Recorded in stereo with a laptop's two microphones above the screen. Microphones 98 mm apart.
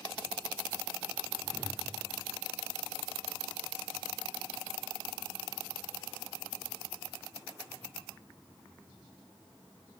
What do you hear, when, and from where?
1.4 s a whoosh: 25° right (ahead or behind), 2.5 m